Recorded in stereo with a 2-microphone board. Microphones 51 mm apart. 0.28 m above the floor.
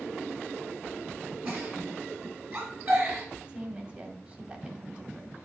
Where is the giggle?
35° right (ahead or behind), 2.5 m.